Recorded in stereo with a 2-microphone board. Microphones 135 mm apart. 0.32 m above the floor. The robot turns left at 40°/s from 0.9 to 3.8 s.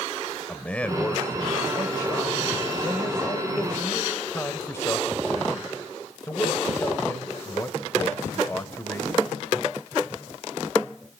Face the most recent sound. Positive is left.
turn(degrees=20)  # may be behind; listen again after turning